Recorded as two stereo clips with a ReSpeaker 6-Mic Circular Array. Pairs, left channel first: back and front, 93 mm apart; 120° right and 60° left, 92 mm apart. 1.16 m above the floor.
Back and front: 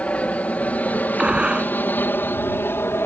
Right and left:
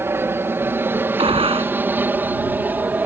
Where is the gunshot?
80° left.